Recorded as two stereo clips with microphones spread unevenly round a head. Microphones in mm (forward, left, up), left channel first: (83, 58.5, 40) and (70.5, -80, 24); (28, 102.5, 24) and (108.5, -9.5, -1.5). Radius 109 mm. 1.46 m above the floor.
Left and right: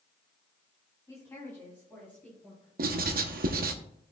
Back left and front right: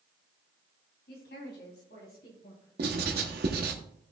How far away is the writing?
About 0.9 m.